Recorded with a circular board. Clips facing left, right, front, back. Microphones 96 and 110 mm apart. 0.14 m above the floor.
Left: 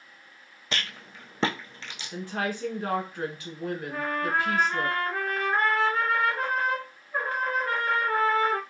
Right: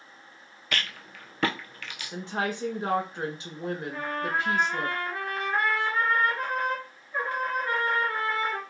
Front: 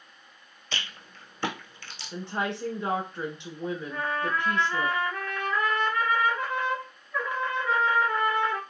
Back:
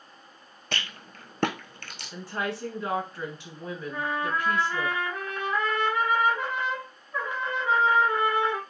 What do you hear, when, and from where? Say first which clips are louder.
0.7 s a rattle: right 1 dB, back 3 dB; 150° left, 0.8 m
2.1 s a woman speaking: even, front 1 dB; 45° right, 1.2 m
3.9 s a trumpet: left 4 dB, back 3 dB; 120° left, 2.5 m